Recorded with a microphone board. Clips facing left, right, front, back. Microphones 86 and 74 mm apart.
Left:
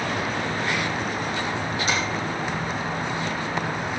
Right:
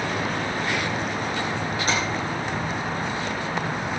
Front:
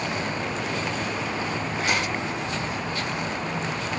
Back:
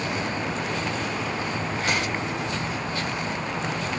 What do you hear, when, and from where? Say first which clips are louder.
1.9 s tapping: right 1 dB, front 1 dB; 140° right, 6 m